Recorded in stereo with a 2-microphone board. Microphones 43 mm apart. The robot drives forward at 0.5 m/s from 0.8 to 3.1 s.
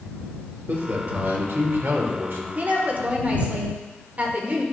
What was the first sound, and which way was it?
A man speaking, 50° right (ahead or behind).